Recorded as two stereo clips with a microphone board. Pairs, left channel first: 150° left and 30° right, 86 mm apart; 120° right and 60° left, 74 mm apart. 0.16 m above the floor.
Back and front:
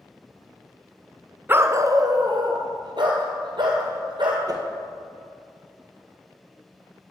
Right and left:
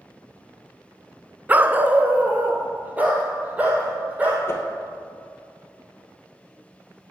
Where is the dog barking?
15° left, 0.6 m; by 4.4 s 10° right, 3.5 m.